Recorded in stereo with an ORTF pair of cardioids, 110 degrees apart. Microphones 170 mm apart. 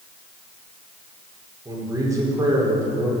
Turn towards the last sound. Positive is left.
turn(degrees=-20)